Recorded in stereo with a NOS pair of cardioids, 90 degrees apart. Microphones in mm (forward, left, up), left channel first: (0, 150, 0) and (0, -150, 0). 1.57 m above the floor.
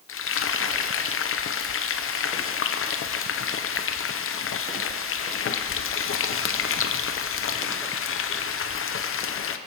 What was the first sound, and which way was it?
Frying, 50° left.